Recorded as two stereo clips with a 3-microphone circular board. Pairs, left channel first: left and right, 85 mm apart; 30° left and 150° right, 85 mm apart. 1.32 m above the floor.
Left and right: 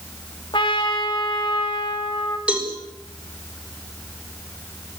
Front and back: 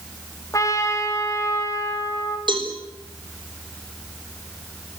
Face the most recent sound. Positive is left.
turn(degrees=-170)